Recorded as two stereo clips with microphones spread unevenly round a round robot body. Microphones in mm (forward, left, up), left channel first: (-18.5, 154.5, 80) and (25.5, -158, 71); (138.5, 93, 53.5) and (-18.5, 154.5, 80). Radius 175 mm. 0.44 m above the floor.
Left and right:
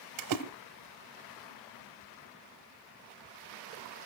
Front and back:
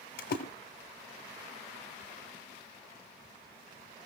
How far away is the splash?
About 1.5 m.